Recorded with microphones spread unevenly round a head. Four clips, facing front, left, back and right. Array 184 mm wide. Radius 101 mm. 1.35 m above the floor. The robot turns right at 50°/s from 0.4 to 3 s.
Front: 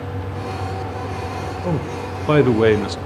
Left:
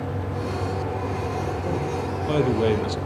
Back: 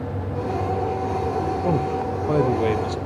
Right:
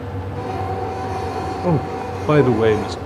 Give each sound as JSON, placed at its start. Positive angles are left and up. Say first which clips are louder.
{"t": 1.6, "sound": "a man speaking", "louder": "right 5 dB, back 2 dB", "azimuth_deg": -85, "distance_m": 0.7}